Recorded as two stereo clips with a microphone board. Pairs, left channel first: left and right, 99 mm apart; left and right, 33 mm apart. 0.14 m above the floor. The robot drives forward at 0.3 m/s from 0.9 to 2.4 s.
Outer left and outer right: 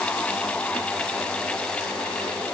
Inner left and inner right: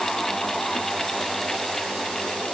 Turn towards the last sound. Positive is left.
No sound to turn to.